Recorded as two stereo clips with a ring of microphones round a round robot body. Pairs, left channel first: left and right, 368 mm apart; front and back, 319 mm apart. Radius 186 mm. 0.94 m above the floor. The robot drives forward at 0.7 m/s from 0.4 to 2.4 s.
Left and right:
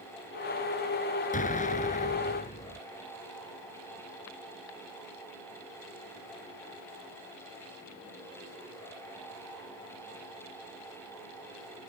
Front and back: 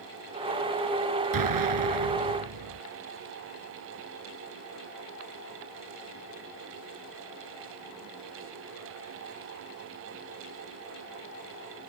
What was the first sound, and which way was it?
An explosion, 160° left.